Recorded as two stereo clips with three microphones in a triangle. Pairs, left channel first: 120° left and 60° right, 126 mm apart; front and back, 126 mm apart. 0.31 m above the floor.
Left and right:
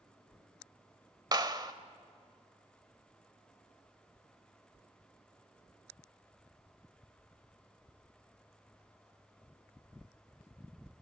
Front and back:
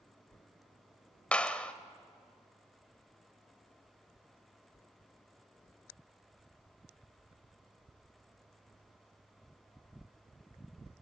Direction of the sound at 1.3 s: 75° right.